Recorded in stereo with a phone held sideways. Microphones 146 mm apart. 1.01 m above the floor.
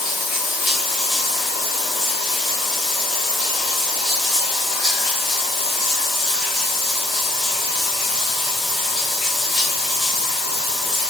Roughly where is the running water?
Centre.